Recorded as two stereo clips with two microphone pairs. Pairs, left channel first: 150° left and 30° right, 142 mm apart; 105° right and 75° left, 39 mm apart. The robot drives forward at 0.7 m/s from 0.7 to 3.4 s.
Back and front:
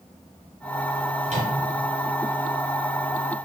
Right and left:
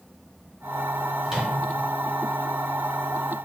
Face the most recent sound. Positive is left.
turn(degrees=0)